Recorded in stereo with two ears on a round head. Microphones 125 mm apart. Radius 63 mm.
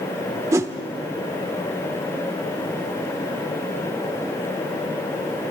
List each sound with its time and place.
0.5 s a whoosh: 20° right (ahead or behind), 0.7 m